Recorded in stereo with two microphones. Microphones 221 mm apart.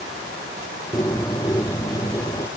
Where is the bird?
15° left (ahead or behind).